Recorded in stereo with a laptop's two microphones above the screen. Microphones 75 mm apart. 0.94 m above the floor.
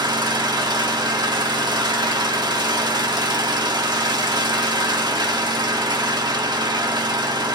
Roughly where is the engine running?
Right.